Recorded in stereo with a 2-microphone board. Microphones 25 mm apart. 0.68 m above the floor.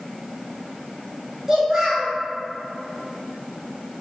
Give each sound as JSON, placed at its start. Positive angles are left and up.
{"t": 1.5, "sound": "a child speaking", "side_deg": -25, "distance_m": 1.6}